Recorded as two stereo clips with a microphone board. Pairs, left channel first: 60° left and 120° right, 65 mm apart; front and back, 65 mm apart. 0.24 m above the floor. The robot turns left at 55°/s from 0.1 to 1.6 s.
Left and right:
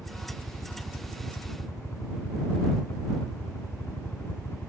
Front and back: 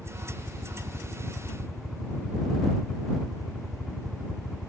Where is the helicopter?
170° left; by 4.7 s 100° left.